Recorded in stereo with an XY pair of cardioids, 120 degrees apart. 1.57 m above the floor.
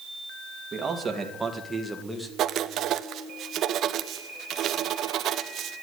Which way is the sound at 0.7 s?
30° right.